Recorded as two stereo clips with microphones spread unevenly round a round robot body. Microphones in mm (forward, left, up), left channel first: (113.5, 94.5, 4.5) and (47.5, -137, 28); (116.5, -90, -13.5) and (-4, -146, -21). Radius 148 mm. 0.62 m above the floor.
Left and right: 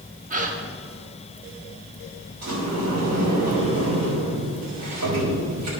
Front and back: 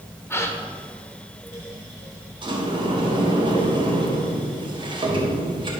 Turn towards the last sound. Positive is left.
turn(degrees=-105)